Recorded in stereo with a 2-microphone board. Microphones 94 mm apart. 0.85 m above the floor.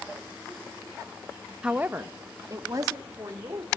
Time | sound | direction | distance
1.6 | a woman speaking | 10° right (ahead or behind) | 0.7 m